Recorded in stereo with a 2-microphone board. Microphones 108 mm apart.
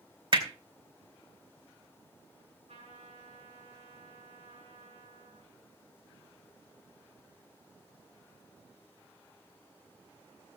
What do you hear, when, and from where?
0.3 s hammering: 50° right (ahead or behind), 2.5 m
2.7 s a trumpet: 85° right, 8.5 m